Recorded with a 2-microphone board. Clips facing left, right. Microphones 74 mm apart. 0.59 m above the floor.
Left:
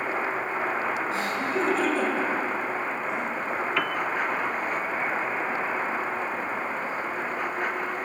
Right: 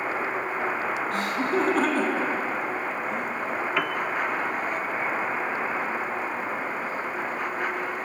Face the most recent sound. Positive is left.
turn(degrees=-5)  # may be behind; listen again after turning